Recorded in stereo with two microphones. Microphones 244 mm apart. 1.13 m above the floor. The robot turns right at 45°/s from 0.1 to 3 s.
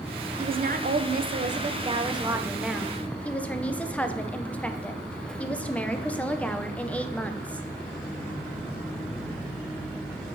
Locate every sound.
0.4 s a woman speaking: 110° right, 0.5 m; by 7.7 s 10° left, 0.5 m